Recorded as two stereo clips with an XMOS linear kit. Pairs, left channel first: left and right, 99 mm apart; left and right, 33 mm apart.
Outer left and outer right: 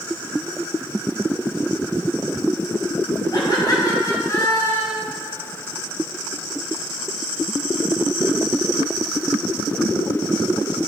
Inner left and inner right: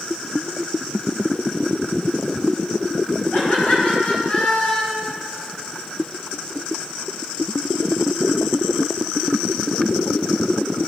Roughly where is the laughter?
Left.